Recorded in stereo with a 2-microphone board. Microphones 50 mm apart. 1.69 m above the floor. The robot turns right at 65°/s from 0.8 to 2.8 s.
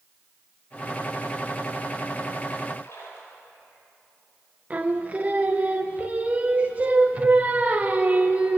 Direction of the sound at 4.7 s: 30° right (ahead or behind).